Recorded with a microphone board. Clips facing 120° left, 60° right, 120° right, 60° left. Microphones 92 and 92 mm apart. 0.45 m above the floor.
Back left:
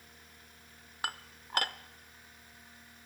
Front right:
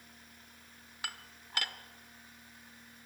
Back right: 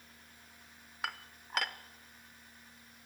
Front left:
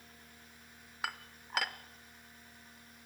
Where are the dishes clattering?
150° left, 0.7 m.